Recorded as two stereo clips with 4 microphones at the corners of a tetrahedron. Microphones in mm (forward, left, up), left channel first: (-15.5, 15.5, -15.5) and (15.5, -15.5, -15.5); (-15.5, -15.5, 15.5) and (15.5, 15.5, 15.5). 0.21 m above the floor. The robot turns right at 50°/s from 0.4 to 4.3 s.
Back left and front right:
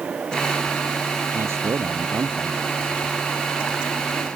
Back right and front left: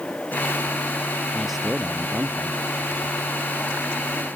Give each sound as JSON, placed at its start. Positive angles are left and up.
{"t": 1.3, "sound": "a man speaking", "azimuth_deg": -50}